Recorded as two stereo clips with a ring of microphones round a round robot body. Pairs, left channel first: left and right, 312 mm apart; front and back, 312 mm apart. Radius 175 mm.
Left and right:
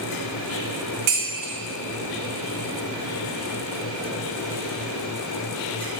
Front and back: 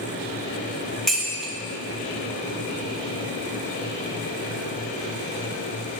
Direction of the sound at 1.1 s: 90° right.